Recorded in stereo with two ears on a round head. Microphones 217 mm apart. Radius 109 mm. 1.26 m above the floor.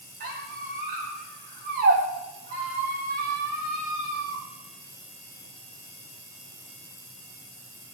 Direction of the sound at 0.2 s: 35° right (ahead or behind).